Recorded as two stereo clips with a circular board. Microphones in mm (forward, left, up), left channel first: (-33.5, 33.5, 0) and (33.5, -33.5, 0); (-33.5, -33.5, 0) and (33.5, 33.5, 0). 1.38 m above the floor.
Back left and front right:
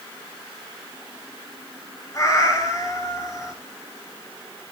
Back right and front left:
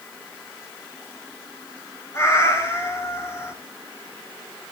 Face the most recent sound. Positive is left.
turn(degrees=175)